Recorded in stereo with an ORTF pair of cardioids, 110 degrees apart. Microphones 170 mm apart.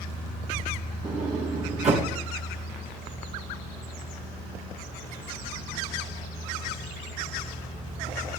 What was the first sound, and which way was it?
A sliding door, 45° right.